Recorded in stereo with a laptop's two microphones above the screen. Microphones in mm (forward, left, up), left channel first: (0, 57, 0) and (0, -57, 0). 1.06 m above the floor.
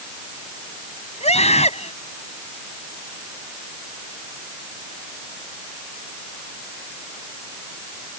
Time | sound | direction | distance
1.2 | a scream | 70° left (ahead or behind) | ?